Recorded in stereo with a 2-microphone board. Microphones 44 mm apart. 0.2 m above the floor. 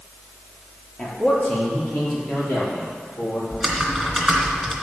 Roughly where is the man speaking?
Left.